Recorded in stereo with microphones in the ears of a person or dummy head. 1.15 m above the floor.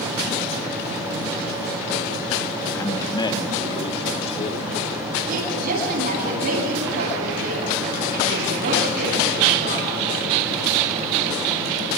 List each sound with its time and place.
2.8 s a man speaking: 15° left (ahead or behind), 1.7 m; by 4.8 s 40° left (ahead or behind), 3 m
5.3 s a woman speaking: 55° right (ahead or behind), 9.5 m